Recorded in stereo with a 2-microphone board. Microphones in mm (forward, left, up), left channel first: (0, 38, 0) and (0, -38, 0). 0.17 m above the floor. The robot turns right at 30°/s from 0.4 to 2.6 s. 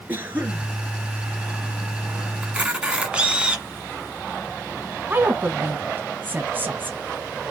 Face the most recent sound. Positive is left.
turn(degrees=-25)  # may be behind; listen again after turning